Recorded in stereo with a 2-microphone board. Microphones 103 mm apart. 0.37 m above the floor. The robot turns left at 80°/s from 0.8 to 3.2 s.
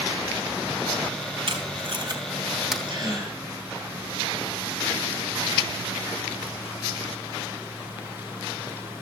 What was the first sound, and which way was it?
Tape being pulled, 60° right (ahead or behind).